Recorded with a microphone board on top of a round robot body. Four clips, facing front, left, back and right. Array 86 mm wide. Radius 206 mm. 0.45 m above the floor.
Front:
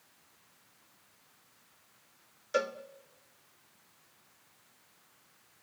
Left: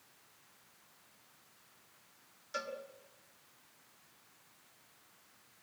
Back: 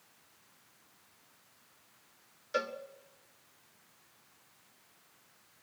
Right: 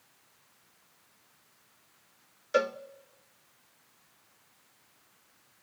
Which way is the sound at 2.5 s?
80° right.